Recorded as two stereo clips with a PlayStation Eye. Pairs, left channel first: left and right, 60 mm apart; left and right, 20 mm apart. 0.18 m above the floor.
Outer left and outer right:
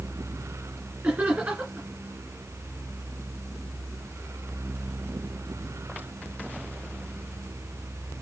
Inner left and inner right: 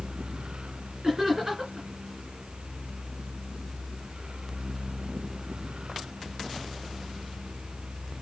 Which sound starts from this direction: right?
Laughter, at 1.0 s.